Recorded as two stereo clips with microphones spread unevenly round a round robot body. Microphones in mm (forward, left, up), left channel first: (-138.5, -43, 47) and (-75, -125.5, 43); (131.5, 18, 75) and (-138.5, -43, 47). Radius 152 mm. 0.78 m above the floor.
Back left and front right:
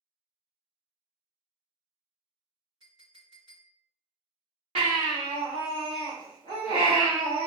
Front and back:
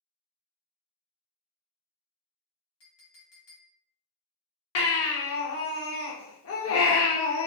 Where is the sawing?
I don't hear sawing.